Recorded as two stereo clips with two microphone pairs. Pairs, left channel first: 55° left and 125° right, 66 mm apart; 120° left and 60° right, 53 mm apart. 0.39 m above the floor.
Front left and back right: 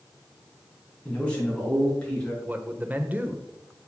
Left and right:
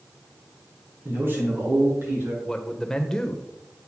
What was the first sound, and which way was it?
A man speaking, 15° right.